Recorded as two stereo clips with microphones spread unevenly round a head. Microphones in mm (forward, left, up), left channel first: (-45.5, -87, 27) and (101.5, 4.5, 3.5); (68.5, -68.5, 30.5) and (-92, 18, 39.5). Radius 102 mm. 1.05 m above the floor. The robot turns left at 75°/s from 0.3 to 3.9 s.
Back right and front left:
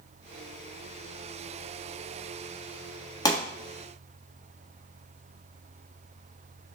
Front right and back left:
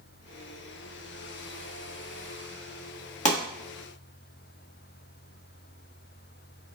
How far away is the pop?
About 1.4 m.